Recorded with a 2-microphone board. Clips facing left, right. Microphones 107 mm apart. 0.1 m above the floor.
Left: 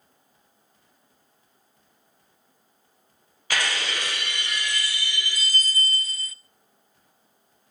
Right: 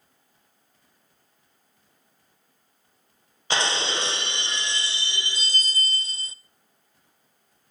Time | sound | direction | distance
3.5 | breaking glass | 25° right (ahead or behind) | 0.7 m